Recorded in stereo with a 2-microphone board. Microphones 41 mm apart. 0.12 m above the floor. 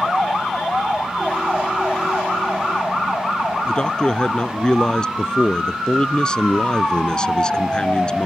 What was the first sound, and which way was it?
A man speaking, 20° left (ahead or behind).